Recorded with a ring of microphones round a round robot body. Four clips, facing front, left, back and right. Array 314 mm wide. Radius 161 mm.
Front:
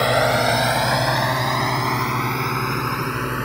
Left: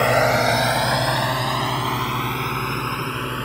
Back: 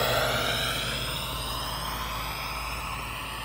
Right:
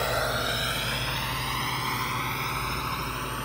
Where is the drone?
55° left; by 3.5 s 30° left.